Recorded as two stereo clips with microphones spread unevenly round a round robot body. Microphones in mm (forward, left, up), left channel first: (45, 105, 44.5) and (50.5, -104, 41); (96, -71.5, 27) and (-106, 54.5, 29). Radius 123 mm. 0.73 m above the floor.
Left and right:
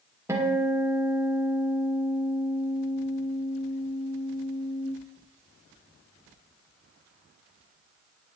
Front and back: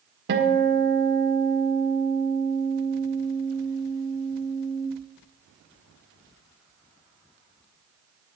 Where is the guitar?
165° right, 1.8 m.